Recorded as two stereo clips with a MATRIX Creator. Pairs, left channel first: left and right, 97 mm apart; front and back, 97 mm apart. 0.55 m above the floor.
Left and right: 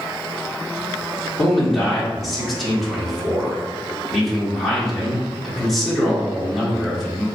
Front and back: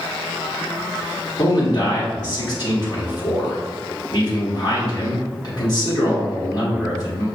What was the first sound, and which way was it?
A man speaking, straight ahead.